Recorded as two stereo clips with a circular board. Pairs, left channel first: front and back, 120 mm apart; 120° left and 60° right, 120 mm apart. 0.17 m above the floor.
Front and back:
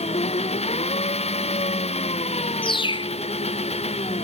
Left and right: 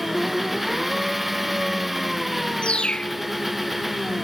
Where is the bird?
40° left.